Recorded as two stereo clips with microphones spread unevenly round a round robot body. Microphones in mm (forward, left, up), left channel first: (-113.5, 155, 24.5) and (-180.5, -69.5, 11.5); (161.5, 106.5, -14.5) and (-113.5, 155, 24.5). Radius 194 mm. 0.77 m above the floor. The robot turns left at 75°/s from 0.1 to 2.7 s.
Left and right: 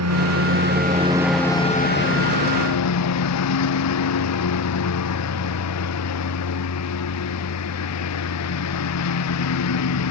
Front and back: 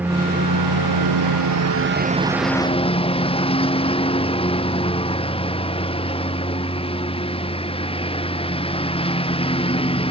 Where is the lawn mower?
105° right; by 10.1 s 60° left.